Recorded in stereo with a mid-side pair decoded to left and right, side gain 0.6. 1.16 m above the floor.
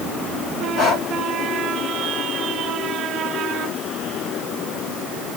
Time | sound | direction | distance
0.8 | breathing | 60° left | 1.8 m